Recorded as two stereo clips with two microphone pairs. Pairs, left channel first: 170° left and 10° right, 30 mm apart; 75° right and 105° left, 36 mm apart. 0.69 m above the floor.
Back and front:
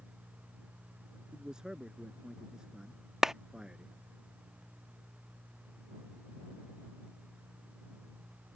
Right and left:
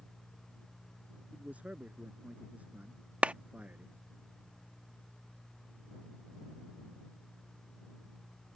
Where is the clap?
60° left.